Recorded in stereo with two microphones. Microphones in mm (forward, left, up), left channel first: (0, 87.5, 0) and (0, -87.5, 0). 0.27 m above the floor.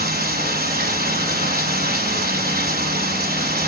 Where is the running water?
60° right (ahead or behind), 2 m.